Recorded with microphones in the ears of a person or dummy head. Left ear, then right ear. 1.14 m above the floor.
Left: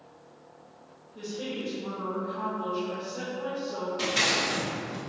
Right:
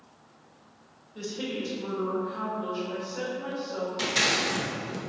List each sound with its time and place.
1.1 s a woman speaking: 60° right (ahead or behind), 1.2 m; by 3.9 s 15° left (ahead or behind), 2.5 m
4.0 s scissors: 15° right (ahead or behind), 0.5 m